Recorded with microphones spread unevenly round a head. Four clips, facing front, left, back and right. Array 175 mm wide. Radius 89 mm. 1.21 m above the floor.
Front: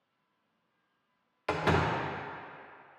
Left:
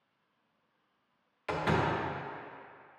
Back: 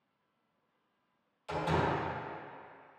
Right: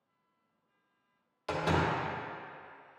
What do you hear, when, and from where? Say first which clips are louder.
1.5 s a door slam: even, front 3 dB; straight ahead, 0.8 m